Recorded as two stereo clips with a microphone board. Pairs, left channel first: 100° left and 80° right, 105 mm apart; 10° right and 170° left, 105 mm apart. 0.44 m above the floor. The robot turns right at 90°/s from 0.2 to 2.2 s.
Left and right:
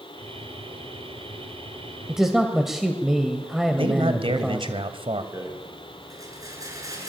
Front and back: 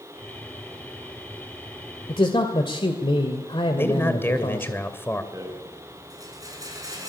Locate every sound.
2.1 s a man speaking: 5° right, 2.0 m; by 4.8 s 5° left, 2.0 m
3.8 s a man speaking: 75° right, 2.5 m
5.3 s a rattle: 135° right, 6 m